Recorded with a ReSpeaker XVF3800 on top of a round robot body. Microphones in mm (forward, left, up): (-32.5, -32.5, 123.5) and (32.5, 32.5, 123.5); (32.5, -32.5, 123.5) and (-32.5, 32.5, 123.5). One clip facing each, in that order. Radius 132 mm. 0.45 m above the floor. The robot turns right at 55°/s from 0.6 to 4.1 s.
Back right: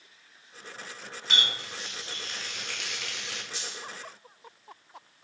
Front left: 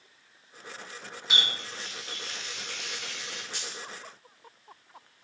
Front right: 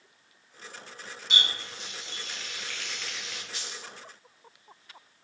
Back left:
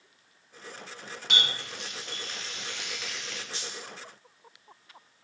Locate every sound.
1.3 s a running tap: 125° left, 0.7 m; by 3.4 s 120° right, 0.7 m
3.5 s a dropped coin: 75° left, 0.7 m; by 3.9 s 95° left, 0.7 m